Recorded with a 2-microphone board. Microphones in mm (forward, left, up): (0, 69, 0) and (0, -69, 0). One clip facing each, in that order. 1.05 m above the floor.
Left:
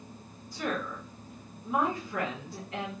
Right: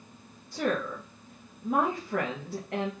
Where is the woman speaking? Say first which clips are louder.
Right 4 dB; 60° right (ahead or behind), 1.0 m.